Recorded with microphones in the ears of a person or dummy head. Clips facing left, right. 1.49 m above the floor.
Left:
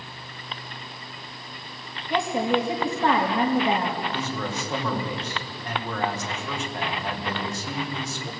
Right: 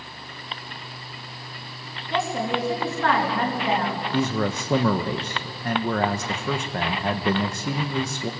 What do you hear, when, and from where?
2.1 s a woman speaking: 15° left (ahead or behind), 3.5 m
4.1 s a man speaking: 45° right (ahead or behind), 1.9 m